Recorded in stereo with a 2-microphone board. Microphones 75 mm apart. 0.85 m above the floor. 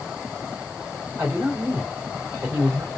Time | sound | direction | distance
1.2 | a man speaking | 25° right (ahead or behind) | 2.5 m